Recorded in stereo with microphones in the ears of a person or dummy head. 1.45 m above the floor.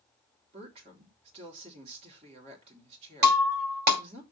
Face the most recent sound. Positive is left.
turn(degrees=-60)  # may be behind; listen again after turning